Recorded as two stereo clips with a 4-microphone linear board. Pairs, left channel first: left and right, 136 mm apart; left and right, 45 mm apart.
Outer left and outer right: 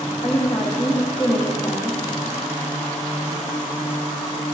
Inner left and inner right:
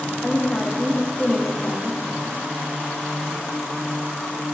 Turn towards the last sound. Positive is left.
turn(degrees=35)  # may be behind; listen again after turning